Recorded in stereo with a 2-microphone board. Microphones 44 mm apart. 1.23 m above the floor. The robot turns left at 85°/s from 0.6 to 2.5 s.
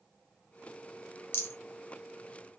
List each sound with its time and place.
1.3 s a rattle: 60° left (ahead or behind), 1.1 m